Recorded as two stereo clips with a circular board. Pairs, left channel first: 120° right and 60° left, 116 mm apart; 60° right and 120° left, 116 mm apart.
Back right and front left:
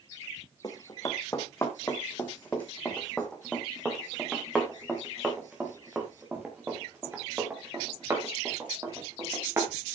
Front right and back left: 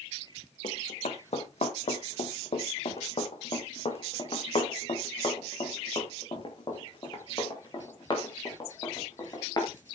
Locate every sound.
0.6 s running footsteps: 65° right, 3 m; by 9.7 s 5° right, 6.5 m